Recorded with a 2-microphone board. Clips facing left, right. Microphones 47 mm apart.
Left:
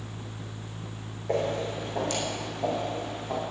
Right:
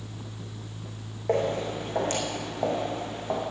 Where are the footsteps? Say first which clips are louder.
Right 2 dB; 45° right (ahead or behind), 5 m.